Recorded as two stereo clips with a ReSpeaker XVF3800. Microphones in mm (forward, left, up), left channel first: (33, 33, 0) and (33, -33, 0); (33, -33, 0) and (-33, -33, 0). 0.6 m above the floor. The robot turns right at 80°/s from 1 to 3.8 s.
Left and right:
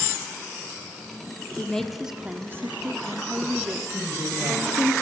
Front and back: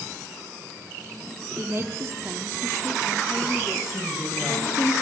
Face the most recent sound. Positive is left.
turn(degrees=-110)